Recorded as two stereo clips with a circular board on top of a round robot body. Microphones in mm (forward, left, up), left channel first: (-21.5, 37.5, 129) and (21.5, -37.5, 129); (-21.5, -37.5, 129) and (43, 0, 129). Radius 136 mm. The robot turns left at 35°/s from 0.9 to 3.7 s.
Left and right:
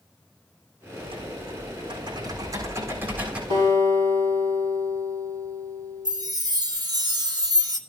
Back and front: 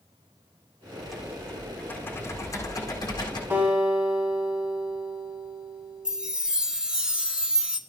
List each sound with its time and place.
1.0 s typing on a keyboard: 50° right, 6 m; by 3.4 s 135° right, 6 m
3.5 s a guitar: 35° right, 3.5 m; by 6.1 s 40° right, 3.5 m
6.0 s a chime: 45° right, 1.3 m